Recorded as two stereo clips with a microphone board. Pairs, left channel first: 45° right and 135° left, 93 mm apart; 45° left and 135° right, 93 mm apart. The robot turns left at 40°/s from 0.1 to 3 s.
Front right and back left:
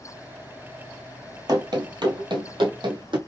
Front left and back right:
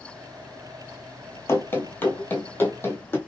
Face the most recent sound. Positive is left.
turn(degrees=110)